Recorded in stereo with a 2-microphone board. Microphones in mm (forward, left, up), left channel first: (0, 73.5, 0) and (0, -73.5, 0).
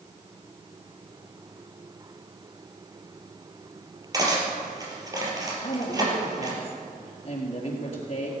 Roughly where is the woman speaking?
Left.